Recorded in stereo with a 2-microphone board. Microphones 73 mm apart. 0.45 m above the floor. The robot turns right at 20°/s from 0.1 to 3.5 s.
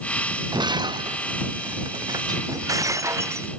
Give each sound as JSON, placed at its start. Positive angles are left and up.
{"t": 0.5, "sound": "breaking glass", "azimuth_deg": -95}